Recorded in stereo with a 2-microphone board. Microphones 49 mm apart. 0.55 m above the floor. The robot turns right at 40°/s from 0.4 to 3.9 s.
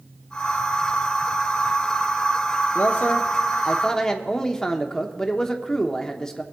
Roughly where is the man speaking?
Behind left.